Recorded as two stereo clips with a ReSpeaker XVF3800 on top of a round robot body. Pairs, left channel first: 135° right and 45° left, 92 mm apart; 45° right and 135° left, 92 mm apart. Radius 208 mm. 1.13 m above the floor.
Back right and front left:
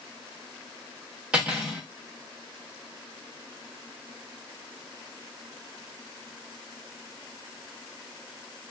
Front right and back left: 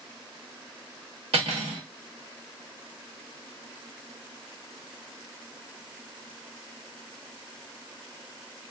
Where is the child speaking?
No child speaking in this recording.